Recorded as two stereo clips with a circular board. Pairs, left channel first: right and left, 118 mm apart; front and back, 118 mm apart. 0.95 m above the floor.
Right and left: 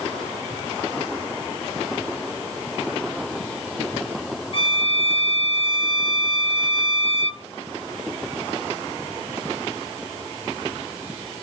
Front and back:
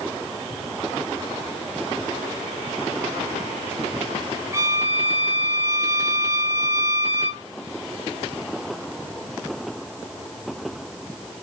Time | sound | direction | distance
4.5 | a violin | 115° right | 1.6 m